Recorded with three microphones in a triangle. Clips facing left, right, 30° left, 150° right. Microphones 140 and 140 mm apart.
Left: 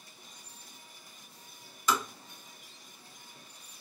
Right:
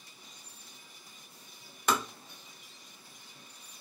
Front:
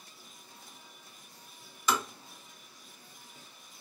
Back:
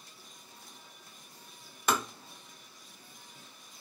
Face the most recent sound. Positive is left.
turn(degrees=-115)